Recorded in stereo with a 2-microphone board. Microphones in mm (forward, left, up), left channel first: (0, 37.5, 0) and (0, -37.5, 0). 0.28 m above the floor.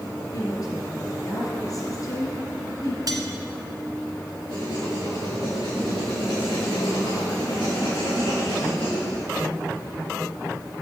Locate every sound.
0.3 s a woman speaking: 50° left (ahead or behind), 4.5 m
3.1 s cutlery clinking: 55° right (ahead or behind), 1.7 m
4.5 s writing: 80° left, 5.5 m